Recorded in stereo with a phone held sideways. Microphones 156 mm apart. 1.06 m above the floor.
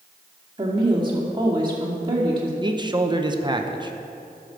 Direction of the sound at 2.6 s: 30° right (ahead or behind).